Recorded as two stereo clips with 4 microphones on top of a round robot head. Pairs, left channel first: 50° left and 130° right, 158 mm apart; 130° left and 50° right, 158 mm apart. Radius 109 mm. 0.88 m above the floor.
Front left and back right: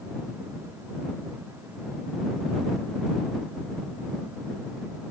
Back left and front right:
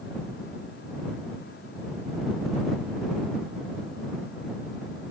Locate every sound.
Only background noise.